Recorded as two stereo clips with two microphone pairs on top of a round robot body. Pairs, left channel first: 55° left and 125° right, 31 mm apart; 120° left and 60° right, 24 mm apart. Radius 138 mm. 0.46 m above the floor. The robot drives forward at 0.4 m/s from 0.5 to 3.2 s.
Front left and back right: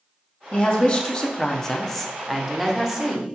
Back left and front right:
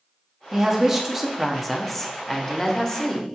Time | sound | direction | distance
0.5 | a woman speaking | 15° left | 0.8 m